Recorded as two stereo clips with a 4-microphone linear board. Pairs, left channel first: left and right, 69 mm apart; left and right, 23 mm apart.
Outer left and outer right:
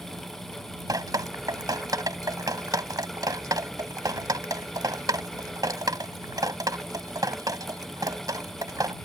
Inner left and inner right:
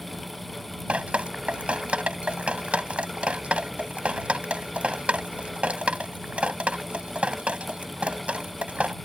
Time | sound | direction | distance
0.9 | dripping | 70° right (ahead or behind) | ?